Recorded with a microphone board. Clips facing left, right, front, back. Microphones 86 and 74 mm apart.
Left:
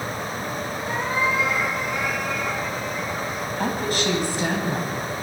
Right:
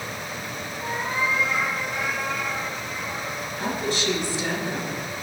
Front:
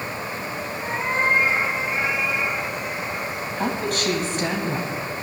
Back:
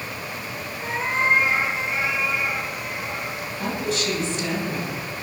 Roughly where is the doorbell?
No doorbell in this recording.